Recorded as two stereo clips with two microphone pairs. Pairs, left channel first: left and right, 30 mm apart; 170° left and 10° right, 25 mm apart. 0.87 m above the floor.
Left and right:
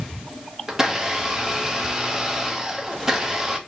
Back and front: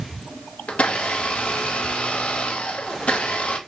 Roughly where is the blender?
Behind.